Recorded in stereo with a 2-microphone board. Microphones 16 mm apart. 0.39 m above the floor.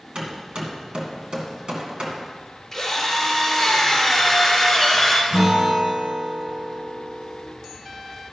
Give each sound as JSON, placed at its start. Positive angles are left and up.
{"t": 0.1, "sound": "hammering", "side_deg": -65, "distance_m": 1.9}
{"t": 2.7, "sound": "a drill", "side_deg": 5, "distance_m": 3.0}
{"t": 5.3, "sound": "a guitar", "side_deg": -50, "distance_m": 5.0}